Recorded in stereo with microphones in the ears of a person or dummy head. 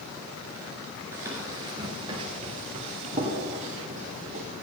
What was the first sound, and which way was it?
Running footsteps, 10° right (ahead or behind).